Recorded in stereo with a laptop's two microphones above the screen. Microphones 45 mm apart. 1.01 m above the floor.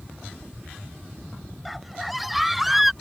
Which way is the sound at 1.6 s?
5° right (ahead or behind).